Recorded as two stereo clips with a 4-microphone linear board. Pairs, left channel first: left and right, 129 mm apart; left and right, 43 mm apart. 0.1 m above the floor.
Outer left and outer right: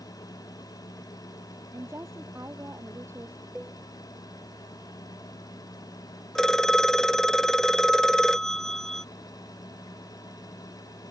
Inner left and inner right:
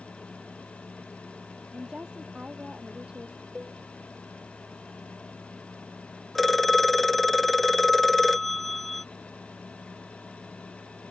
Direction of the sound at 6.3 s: 5° left (ahead or behind).